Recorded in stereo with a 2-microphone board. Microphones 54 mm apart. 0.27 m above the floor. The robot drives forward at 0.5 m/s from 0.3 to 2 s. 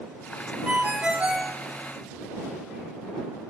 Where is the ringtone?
25° right (ahead or behind), 0.8 m; by 1.6 s 40° right (ahead or behind), 0.5 m.